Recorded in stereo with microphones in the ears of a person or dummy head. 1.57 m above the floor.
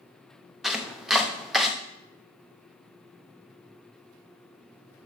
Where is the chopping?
5° right (ahead or behind), 0.8 m.